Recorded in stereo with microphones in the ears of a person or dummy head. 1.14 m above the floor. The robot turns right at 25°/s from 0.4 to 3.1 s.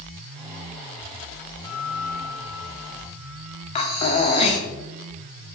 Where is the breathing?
30° left (ahead or behind), 0.9 m.